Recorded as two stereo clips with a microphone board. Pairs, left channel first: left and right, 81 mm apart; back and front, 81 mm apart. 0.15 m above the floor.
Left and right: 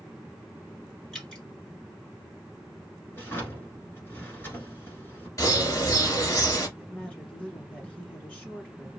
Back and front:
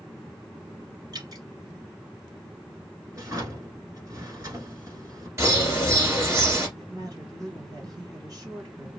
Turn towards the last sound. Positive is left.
turn(degrees=20)